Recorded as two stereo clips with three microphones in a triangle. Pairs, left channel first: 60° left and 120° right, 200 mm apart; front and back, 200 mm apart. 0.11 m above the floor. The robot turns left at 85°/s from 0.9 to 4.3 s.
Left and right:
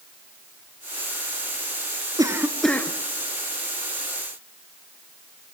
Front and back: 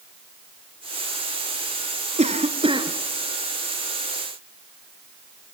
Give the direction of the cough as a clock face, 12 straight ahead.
6 o'clock.